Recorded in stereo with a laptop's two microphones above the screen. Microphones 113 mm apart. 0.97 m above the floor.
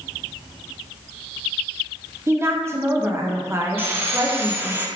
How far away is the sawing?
About 0.6 m.